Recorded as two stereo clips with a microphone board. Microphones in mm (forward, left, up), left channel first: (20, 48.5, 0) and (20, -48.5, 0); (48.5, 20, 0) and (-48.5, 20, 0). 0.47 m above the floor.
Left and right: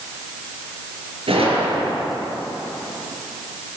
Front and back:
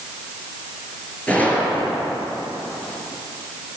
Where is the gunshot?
75° right, 7 m.